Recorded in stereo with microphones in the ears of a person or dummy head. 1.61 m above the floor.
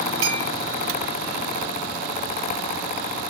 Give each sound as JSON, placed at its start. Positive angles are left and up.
{"t": 0.2, "sound": "a clink", "side_deg": -35, "distance_m": 1.1}